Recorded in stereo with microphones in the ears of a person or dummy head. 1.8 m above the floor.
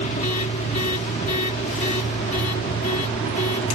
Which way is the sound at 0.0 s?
40° left (ahead or behind).